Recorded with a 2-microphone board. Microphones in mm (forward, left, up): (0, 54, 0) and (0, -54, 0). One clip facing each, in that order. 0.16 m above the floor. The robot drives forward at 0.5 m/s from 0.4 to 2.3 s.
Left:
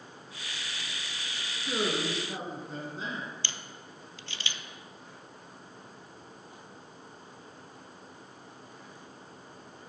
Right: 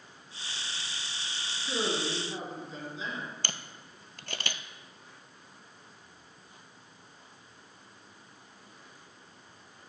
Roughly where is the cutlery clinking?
I don't hear cutlery clinking.